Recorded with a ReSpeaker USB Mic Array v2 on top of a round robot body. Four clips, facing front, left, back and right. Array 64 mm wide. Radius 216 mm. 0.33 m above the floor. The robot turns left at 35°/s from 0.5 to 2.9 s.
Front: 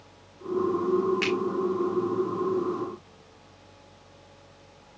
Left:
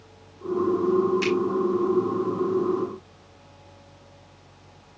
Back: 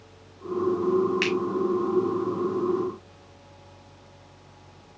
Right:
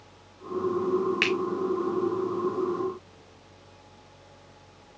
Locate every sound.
1.2 s a finger snap: 105° right, 1.9 m; by 1.4 s 110° right, 1.9 m